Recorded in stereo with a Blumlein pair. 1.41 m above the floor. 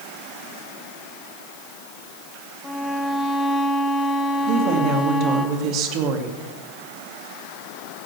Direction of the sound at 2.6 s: Straight ahead.